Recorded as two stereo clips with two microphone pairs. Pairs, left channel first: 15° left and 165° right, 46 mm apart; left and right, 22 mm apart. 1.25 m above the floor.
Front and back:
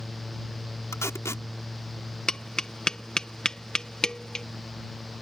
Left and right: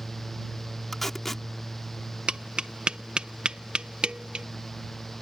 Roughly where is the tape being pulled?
Ahead.